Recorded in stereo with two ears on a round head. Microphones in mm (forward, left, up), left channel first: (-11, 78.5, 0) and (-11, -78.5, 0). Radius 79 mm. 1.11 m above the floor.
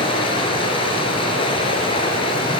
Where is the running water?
35° left (ahead or behind), 4.5 m.